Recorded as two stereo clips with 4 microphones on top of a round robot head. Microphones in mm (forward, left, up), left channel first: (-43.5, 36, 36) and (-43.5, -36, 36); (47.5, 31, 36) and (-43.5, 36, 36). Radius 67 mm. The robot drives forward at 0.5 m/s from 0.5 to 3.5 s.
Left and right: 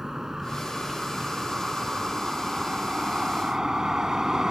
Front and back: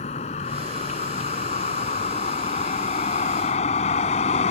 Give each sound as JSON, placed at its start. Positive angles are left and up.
{"t": 0.0, "sound": "a vehicle", "azimuth_deg": -5}